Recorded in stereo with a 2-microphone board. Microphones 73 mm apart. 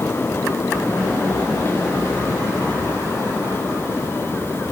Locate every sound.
Only background noise.